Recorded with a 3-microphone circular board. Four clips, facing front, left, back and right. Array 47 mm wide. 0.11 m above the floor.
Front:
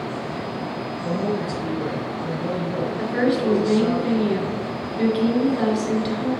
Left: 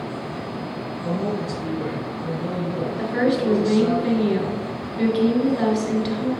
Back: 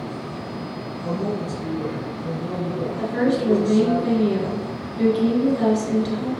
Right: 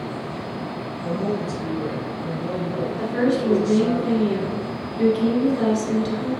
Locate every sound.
1.0 s a woman speaking: 45° left, 1.9 m
3.0 s a woman speaking: 40° left, 1.9 m